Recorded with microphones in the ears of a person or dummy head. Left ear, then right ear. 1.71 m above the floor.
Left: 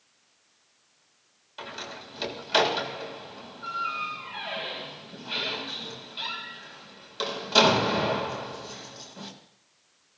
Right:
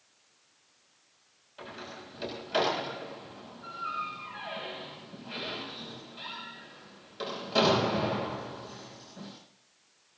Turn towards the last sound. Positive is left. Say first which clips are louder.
# left 5 dB
turn(degrees=40)  # may be behind; listen again after turning